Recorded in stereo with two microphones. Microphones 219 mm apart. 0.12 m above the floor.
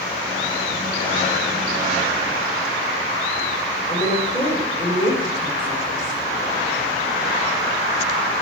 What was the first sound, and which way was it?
A woman speaking, 40° left (ahead or behind).